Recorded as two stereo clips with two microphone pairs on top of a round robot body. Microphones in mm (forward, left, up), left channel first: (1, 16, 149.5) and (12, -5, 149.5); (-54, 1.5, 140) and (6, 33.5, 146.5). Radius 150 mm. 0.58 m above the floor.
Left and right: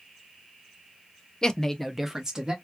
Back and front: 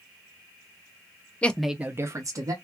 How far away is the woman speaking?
About 0.8 m.